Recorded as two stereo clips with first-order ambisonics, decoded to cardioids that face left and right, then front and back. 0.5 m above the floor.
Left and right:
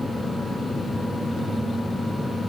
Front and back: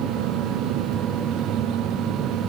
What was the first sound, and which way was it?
Only background noise.